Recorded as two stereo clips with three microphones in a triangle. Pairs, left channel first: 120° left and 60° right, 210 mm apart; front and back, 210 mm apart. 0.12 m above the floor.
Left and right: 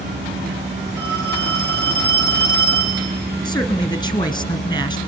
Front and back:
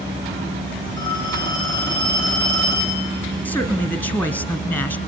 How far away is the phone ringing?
About 6.5 m.